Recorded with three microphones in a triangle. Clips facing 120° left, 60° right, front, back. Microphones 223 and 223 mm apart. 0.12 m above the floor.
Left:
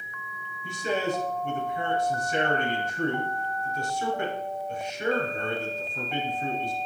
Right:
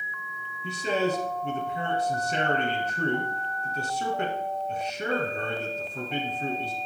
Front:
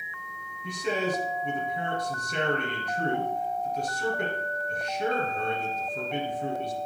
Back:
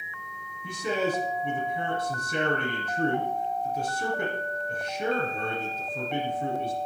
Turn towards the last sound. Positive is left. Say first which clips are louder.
# right 2 dB, back 1 dB
turn(degrees=-100)